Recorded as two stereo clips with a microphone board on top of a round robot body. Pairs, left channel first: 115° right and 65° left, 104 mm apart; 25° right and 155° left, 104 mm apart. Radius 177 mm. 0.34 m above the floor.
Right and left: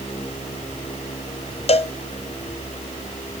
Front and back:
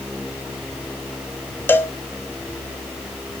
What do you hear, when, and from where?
1.7 s a cowbell: 95° right, 1.2 m